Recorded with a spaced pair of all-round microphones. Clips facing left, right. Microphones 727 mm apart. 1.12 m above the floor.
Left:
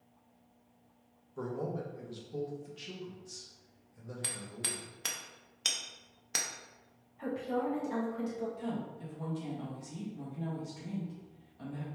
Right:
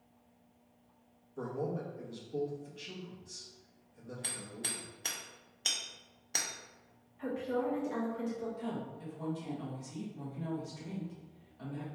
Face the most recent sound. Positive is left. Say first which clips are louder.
# left 2 dB
turn(degrees=-5)  # may be behind; listen again after turning